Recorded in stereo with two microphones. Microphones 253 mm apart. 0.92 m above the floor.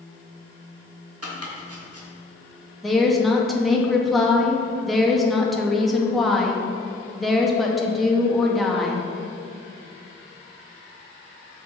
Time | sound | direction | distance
1.2 | chopping | 70° right (ahead or behind) | 1.3 m
2.8 | a woman speaking | centre (ahead or behind) | 0.9 m